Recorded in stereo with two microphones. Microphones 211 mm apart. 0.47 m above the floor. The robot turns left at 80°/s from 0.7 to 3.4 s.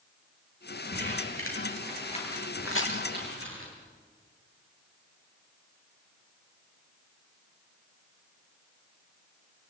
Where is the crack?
80° left, 6.5 m.